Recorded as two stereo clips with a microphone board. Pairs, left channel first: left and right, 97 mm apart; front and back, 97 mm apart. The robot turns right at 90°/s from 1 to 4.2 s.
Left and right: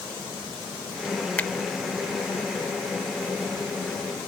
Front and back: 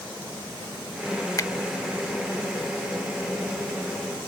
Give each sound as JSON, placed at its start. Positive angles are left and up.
{"t": 1.4, "sound": "a finger snap", "azimuth_deg": 25}